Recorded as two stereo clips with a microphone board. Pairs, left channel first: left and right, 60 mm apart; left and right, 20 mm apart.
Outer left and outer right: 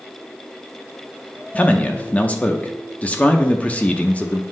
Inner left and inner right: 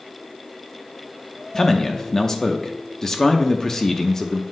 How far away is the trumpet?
I don't hear a trumpet.